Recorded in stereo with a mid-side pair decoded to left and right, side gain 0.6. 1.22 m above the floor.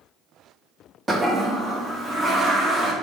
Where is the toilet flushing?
15° right, 0.6 m.